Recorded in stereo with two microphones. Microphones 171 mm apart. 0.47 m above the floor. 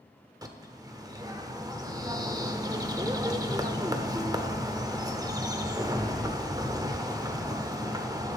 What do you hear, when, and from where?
0.4 s a bird: 20° right (ahead or behind), 0.7 m